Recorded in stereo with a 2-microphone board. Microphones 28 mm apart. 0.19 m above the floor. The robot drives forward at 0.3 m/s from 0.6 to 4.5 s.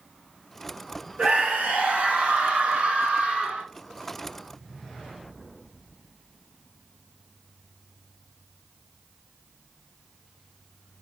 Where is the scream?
55° right (ahead or behind), 2 m; by 3.6 s 45° right (ahead or behind), 2.5 m.